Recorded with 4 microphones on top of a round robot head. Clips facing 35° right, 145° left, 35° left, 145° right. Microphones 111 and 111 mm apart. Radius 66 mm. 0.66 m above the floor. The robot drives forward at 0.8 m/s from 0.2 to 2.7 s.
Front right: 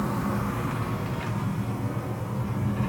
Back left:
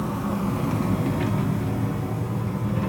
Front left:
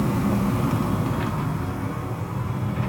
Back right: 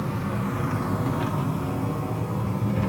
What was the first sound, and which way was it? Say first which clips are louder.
An engine running: back left 2 dB, front left 6 dB; 65° left.